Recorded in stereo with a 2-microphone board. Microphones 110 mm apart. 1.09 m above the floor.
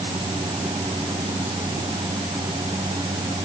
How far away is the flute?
No flute in this recording.